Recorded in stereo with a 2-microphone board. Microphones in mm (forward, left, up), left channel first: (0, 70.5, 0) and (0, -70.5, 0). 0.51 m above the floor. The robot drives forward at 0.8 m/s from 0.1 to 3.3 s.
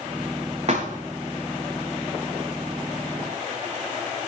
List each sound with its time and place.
0.7 s a thud: 50° right (ahead or behind), 6.5 m